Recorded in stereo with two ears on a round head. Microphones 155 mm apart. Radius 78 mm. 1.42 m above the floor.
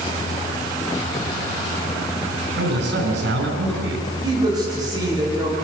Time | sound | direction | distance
2.6 | a man speaking | 75° right (ahead or behind) | 8 m
4.2 | a man speaking | 25° right (ahead or behind) | 9 m